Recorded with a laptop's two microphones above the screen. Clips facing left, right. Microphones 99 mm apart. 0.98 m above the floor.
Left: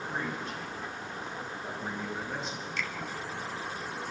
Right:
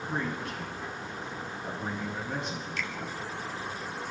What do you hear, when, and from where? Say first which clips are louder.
0.1 s a man speaking: right 3 dB; 70° right (ahead or behind), 7.5 m
2.8 s a finger snap: left 2 dB; 5° right (ahead or behind), 4 m